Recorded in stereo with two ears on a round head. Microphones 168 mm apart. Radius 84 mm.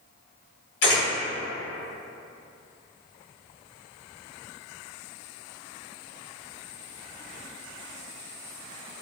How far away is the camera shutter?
About 1.4 m.